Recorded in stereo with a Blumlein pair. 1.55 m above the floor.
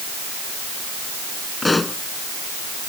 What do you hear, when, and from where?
1.6 s a pop: 10° left